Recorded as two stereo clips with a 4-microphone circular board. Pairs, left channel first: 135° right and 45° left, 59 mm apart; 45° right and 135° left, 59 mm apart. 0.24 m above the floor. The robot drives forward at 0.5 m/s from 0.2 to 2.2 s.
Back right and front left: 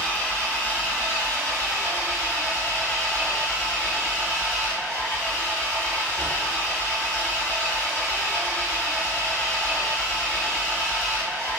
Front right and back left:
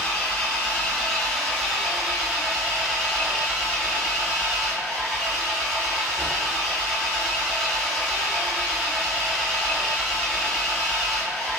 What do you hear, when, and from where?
0.0 s an engine running: 100° right, 1.4 m; by 11.6 s 145° right, 1.8 m